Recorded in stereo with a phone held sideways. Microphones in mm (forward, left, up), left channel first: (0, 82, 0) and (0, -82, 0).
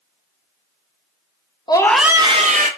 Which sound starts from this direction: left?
A scream, at 1.7 s.